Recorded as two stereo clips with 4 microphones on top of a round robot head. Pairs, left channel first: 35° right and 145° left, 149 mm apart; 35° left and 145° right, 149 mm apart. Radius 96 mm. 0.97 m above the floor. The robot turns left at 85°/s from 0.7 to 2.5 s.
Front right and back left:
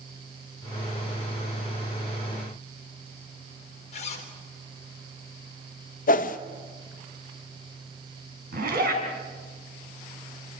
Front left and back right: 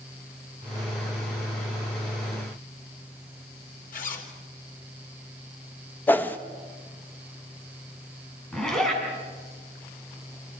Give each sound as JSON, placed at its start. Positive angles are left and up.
{"t": 3.9, "sound": "a zipper", "azimuth_deg": 10, "distance_m": 4.0}
{"t": 6.1, "sound": "a whoosh", "azimuth_deg": -40, "distance_m": 1.2}
{"t": 8.5, "sound": "a zipper", "azimuth_deg": 120, "distance_m": 5.5}